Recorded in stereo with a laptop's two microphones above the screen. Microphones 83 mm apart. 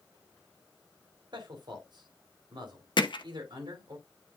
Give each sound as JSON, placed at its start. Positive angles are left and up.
{"t": 1.3, "sound": "a man speaking", "side_deg": -65, "distance_m": 3.0}
{"t": 3.0, "sound": "hammering", "side_deg": 70, "distance_m": 0.8}